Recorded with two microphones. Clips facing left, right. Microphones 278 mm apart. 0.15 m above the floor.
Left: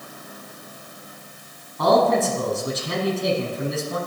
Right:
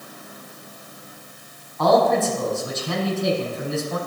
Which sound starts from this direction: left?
A man speaking, at 1.8 s.